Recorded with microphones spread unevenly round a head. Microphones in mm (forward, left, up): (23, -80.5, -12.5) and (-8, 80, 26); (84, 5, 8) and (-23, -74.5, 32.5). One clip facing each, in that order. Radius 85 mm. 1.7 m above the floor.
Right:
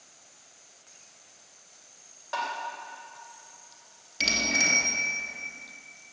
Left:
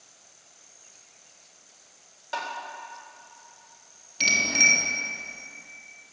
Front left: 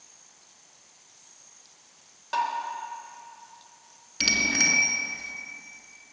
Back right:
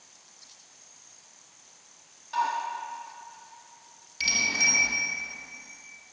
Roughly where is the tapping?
Ahead left.